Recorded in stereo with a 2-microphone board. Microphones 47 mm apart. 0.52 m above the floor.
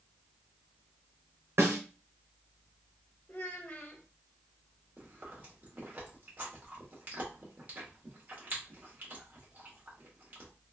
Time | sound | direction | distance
1.6 | a snare drum | 60° right (ahead or behind) | 0.7 m
3.3 | a child speaking | 40° left (ahead or behind) | 0.9 m
5.0 | chewing | 40° right (ahead or behind) | 1.3 m